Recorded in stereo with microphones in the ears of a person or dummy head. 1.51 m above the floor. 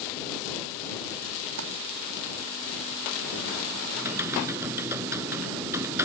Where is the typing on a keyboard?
15° right (ahead or behind).